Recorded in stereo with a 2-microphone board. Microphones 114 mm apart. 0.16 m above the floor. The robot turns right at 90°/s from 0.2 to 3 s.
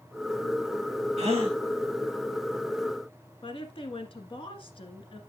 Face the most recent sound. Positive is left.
turn(degrees=50)  # may be behind; listen again after turning